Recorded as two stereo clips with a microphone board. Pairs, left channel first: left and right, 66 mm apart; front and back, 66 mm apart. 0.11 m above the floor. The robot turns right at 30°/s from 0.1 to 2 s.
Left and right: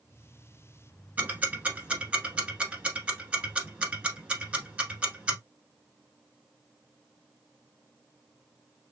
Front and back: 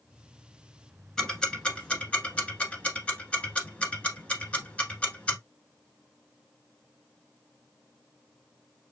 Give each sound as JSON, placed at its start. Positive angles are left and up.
{"t": 1.2, "sound": "ticking", "azimuth_deg": -70, "distance_m": 1.1}